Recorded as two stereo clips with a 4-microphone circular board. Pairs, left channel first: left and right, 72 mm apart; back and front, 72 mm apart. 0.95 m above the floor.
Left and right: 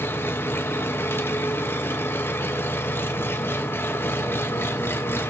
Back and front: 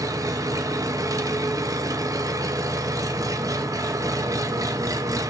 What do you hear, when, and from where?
0.0 s an engine running: 35° left, 0.7 m